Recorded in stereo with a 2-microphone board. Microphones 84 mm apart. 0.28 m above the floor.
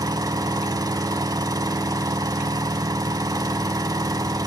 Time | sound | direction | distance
0.0 | an engine running | 50° right (ahead or behind) | 1.1 m